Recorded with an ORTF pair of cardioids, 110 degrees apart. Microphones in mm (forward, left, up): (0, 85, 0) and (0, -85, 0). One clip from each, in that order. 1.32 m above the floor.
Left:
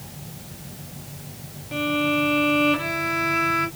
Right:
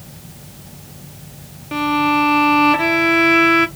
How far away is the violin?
About 0.7 m.